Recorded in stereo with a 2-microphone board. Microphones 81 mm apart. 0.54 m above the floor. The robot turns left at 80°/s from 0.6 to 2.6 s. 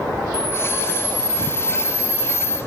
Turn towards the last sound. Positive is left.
turn(degrees=180)